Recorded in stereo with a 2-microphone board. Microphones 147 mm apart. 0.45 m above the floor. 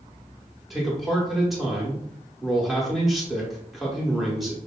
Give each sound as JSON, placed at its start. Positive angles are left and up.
{"t": 0.7, "sound": "a man speaking", "side_deg": 0, "distance_m": 0.9}